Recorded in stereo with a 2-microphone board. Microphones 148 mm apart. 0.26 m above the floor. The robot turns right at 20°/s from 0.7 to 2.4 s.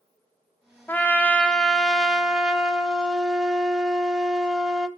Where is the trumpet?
160° left, 0.6 m; by 4.9 s 170° right, 0.6 m.